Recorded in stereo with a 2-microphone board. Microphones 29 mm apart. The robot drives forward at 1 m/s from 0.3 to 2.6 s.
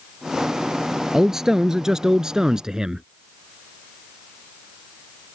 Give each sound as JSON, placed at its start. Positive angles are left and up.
{"t": 1.1, "sound": "a man speaking", "side_deg": -15}